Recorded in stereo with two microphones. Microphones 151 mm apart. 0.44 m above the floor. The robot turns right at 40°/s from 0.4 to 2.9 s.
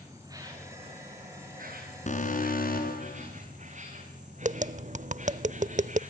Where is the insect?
155° right, 6.5 m; by 6.1 s 55° right, 6.5 m.